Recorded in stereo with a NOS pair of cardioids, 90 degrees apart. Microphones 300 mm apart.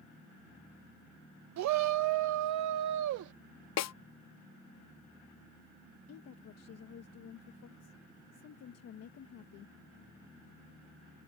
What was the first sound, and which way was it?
A shout, 70° right.